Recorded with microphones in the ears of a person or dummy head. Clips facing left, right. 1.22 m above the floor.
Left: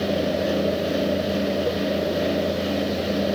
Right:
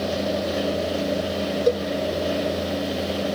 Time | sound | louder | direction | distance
1.7 | a cowbell | right 4 dB | 55° right (ahead or behind) | 1.7 m